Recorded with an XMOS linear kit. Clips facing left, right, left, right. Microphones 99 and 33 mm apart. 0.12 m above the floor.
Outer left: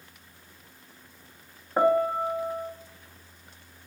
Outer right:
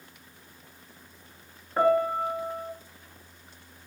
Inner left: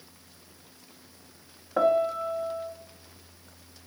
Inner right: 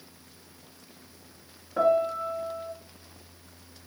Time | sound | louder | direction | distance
1.8 | a piano | outer left 1 dB, even | 15° left (ahead or behind) | 0.6 m